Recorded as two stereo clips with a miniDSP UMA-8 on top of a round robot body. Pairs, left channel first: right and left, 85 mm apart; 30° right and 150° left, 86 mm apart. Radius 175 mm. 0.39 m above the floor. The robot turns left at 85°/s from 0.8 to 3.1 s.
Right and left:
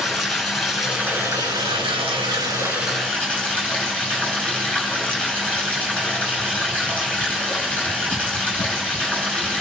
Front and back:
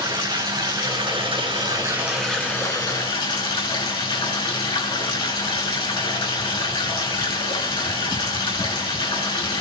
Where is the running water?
Straight behind, 5.5 m; by 9.6 s 15° right, 5.5 m.